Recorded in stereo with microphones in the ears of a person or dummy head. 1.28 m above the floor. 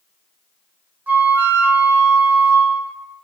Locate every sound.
1.1 s a flute: 15° right (ahead or behind), 0.7 m